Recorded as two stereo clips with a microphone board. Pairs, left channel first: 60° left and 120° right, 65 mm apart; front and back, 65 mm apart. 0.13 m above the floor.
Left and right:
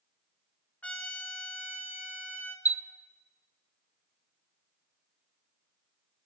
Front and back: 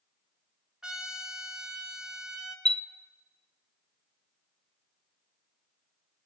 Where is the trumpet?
105° left, 1.4 m.